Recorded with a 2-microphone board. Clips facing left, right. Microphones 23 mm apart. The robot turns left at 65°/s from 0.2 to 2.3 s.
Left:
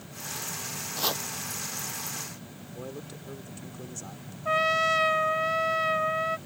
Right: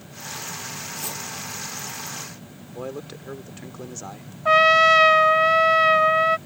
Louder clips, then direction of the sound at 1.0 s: Left 7 dB; 45° left (ahead or behind).